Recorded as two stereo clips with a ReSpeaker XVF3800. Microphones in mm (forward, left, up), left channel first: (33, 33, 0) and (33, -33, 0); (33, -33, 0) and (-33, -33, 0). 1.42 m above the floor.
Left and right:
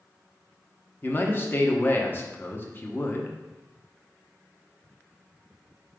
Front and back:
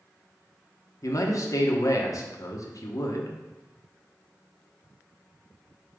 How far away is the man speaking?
About 1.0 m.